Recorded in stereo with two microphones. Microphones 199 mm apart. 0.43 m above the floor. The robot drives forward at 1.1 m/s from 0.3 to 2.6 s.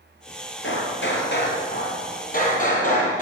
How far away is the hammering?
About 2.5 m.